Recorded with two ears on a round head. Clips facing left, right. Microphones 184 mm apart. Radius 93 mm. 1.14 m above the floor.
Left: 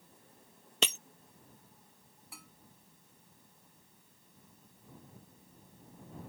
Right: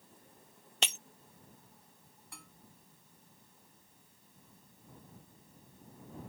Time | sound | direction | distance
0.8 | breaking glass | 70° left (ahead or behind) | ?
2.3 | dishes clattering | centre (ahead or behind) | ?